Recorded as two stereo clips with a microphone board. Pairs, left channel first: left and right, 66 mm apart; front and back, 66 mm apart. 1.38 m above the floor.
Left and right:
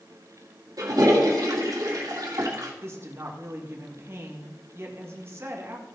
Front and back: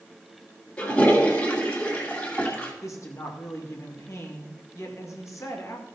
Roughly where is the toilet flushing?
Ahead right.